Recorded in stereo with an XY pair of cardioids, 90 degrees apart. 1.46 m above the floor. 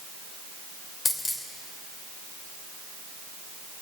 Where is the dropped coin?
45° left, 2.5 m.